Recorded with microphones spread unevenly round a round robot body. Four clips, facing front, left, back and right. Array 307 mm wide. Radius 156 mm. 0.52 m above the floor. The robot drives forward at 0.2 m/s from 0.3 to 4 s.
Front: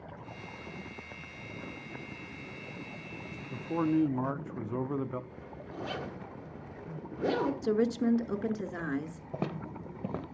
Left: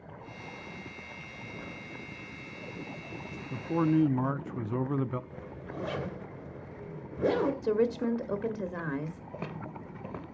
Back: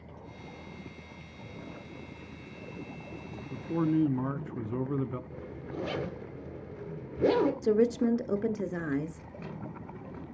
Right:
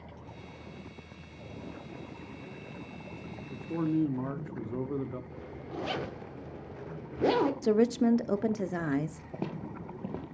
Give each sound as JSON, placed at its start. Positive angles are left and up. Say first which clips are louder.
{"t": 3.5, "sound": "a man speaking", "louder": "left 4 dB, back 1 dB", "azimuth_deg": 60, "distance_m": 0.7}
{"t": 5.3, "sound": "a zipper", "louder": "right 1 dB, back 4 dB", "azimuth_deg": -145, "distance_m": 1.9}
{"t": 7.6, "sound": "a woman speaking", "louder": "right 3 dB, back 3 dB", "azimuth_deg": -130, "distance_m": 0.9}
{"t": 9.3, "sound": "footsteps", "louder": "right 4 dB, front 5 dB", "azimuth_deg": -25, "distance_m": 1.0}